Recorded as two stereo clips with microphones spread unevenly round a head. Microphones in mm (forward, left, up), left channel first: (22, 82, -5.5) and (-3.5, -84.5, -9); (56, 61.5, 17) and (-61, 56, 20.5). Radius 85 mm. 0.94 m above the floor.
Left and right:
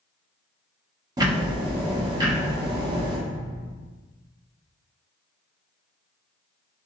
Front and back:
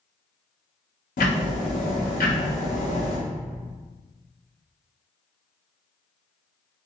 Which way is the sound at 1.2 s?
30° right.